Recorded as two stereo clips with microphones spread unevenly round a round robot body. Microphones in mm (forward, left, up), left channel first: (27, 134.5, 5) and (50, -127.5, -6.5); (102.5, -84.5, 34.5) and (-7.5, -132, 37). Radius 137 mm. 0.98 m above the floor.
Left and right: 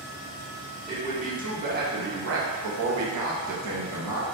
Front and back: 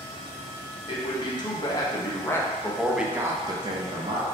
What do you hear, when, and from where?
0.9 s a man speaking: 20° right, 1.5 m; by 4.2 s 125° right, 0.9 m